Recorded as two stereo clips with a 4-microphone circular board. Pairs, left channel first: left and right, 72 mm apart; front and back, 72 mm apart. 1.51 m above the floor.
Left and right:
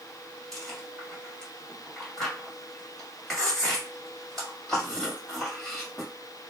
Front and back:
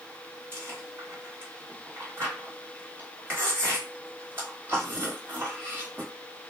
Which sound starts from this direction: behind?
Chewing, at 0.5 s.